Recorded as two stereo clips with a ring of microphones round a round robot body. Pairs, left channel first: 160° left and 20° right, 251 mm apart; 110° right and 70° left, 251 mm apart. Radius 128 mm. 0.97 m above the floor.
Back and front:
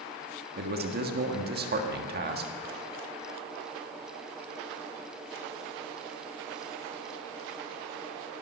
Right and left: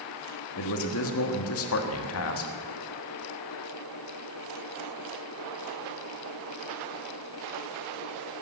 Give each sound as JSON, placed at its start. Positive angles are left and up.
{"t": 0.6, "sound": "a man speaking", "azimuth_deg": -75, "distance_m": 1.6}